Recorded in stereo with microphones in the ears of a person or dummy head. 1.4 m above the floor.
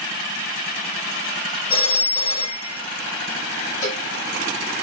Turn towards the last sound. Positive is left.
turn(degrees=35)  # may be behind; listen again after turning